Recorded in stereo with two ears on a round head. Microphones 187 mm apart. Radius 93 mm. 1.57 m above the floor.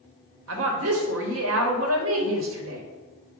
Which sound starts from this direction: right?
A woman speaking, at 0.5 s.